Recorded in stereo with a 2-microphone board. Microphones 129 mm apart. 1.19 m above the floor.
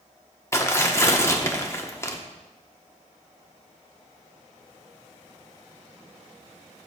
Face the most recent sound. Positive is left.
turn(degrees=20)  # may be behind; listen again after turning